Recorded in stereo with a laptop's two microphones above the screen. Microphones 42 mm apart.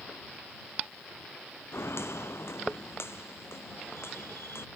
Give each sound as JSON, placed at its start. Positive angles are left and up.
{"t": 1.7, "sound": "footsteps", "side_deg": 80}